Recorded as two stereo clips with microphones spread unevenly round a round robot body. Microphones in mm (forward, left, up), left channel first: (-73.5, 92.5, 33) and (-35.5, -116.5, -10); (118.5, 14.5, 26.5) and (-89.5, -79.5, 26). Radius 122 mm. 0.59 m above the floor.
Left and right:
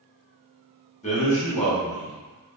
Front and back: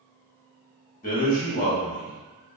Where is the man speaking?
40° left, 0.9 m.